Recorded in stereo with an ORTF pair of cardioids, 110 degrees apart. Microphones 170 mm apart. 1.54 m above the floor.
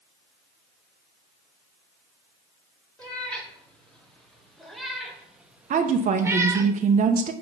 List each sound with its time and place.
3.0 s a cat meowing: 5° left, 2.5 m; by 6.7 s 65° right, 0.8 m
5.7 s a woman speaking: 50° right, 1.0 m